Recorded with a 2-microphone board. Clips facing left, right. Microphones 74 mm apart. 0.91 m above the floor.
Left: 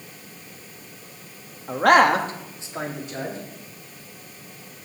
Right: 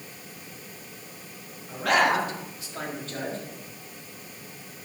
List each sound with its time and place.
1.7 s a man speaking: 65° left (ahead or behind), 1.3 m; by 3.4 s 10° left (ahead or behind), 2.5 m